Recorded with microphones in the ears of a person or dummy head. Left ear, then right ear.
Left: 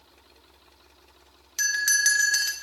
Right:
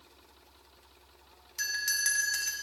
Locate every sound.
1.6 s a bell: 25° left (ahead or behind), 0.8 m